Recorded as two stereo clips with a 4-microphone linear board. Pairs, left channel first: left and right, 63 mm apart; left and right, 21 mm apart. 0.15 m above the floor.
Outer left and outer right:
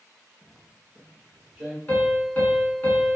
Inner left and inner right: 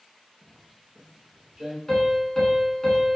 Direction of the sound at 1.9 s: 25° left (ahead or behind).